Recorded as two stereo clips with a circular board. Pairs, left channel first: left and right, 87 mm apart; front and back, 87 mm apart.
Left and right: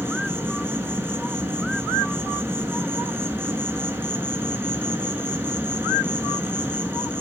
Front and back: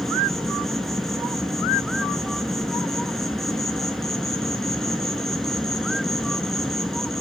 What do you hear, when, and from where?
0.0 s an insect: 85° right, 0.9 m